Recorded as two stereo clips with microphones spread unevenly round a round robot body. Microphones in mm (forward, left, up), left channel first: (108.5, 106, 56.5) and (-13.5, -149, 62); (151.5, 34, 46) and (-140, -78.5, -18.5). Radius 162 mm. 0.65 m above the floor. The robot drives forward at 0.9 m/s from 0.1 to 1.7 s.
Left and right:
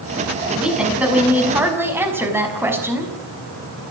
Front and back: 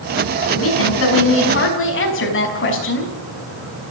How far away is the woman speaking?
About 6.5 m.